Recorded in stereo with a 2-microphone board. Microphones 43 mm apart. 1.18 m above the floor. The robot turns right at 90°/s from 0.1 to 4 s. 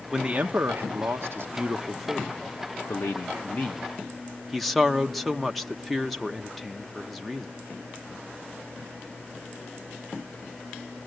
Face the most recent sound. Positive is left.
turn(degrees=180)